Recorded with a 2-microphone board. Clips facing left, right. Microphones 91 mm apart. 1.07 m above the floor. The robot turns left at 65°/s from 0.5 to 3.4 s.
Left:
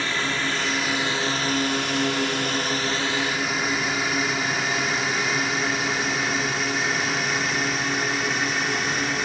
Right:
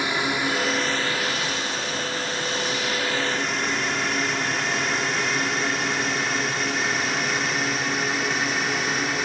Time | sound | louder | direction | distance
0.0 | a drone | right 2 dB | 15° right (ahead or behind) | ?